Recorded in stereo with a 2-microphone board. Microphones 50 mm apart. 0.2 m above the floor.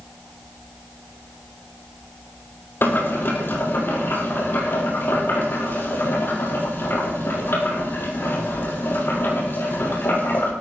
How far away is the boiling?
About 6 m.